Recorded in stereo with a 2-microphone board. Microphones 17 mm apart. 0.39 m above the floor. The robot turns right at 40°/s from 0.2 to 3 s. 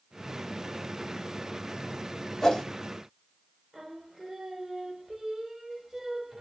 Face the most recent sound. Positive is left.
turn(degrees=-25)  # may be behind; listen again after turning